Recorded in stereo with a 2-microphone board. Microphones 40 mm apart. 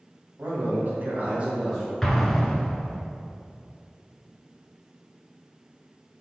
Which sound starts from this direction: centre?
An explosion, at 2.0 s.